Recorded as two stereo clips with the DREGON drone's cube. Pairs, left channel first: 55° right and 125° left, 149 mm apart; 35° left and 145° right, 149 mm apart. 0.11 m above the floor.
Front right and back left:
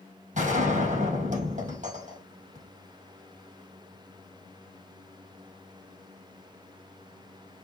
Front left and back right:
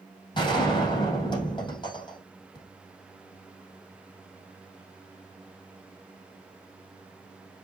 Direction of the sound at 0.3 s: 90° left.